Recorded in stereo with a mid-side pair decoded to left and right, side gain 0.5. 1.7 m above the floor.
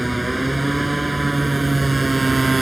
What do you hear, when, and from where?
0.0 s a motorcycle: 5° right; by 2.6 s 20° right